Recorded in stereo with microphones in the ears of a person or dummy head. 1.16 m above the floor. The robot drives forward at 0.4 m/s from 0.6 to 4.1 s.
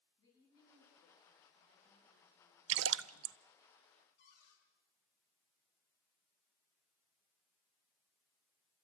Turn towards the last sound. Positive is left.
turn(degrees=65)  # may be behind; listen again after turning